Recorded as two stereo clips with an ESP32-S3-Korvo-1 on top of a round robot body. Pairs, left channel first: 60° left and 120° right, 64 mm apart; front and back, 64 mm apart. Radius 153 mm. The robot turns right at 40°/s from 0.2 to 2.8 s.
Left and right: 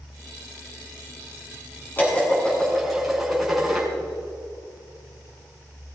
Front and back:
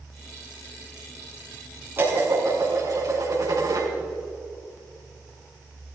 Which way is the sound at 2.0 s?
120° left.